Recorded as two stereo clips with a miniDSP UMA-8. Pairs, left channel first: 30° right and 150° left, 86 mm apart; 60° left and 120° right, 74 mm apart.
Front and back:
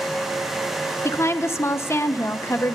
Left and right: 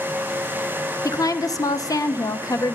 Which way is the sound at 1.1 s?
25° left.